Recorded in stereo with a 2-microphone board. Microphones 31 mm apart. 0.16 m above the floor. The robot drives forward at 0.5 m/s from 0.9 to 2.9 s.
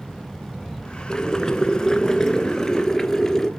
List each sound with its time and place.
1.1 s boiling: 25° left (ahead or behind), 1.1 m; by 3.5 s 15° left (ahead or behind), 1.8 m